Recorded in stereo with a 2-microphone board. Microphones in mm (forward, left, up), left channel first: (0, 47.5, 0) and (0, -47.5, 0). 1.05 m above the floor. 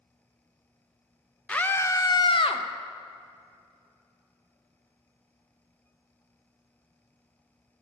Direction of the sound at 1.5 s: 10° left (ahead or behind).